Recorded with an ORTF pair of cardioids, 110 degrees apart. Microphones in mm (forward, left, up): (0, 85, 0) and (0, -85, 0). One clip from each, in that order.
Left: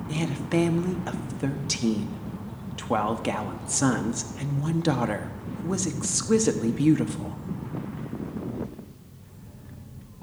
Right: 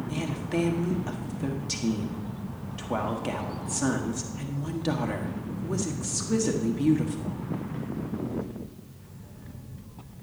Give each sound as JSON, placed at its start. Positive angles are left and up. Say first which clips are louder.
{"t": 0.1, "sound": "a woman speaking", "louder": "left 5 dB", "azimuth_deg": 35, "distance_m": 1.3}